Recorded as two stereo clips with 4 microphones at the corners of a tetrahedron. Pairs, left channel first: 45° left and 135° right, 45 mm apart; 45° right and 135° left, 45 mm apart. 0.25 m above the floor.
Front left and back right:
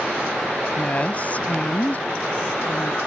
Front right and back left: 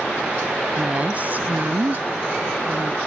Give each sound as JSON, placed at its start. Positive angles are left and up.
{"t": 0.8, "sound": "a woman speaking", "azimuth_deg": 85}